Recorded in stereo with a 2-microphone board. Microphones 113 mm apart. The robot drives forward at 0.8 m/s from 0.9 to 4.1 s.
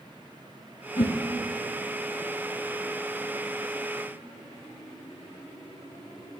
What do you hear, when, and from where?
1.0 s a whoosh: 50° left (ahead or behind), 0.8 m; by 1.1 s 55° left (ahead or behind), 0.7 m